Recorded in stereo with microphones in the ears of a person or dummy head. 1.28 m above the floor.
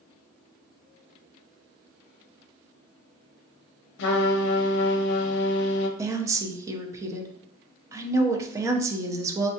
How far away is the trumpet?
About 0.7 m.